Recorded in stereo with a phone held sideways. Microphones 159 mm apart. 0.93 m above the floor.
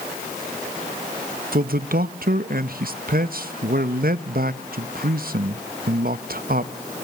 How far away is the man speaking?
About 0.8 m.